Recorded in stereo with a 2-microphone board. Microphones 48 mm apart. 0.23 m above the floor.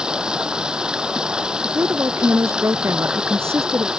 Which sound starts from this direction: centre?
Running water, at 0.0 s.